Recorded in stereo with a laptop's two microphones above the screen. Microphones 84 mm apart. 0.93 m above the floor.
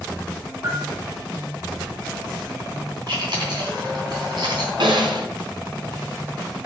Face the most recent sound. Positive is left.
turn(degrees=-70)  # may be behind; listen again after turning